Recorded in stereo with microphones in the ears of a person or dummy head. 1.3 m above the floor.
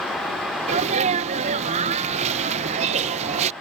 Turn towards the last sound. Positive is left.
turn(degrees=-35)  # may be behind; listen again after turning